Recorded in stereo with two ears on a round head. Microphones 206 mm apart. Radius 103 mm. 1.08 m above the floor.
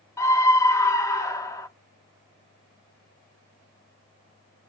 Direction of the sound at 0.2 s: 15° left (ahead or behind).